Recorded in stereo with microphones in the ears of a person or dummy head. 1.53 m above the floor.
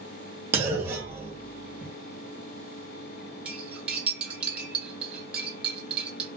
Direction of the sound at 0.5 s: 10° right (ahead or behind).